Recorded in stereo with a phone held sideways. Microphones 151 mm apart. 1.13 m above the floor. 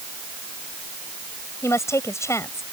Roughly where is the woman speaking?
Centre.